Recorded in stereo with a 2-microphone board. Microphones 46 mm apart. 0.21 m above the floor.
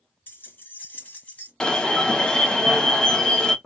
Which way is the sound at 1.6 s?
15° left (ahead or behind).